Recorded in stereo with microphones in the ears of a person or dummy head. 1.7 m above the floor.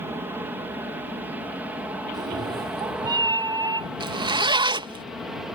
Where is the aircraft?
10° right (ahead or behind); by 5.6 s centre (ahead or behind).